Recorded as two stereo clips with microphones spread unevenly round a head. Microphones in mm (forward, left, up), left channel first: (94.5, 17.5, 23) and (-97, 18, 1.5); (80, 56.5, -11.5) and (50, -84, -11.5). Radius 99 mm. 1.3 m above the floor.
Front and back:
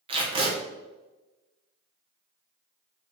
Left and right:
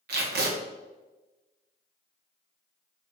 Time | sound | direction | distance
0.1 | tape being pulled | 120° right | 1.2 m